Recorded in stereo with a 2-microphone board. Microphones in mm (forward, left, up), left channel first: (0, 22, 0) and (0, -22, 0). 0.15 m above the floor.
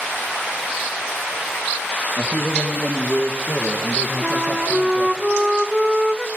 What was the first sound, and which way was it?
A man speaking, 15° right (ahead or behind).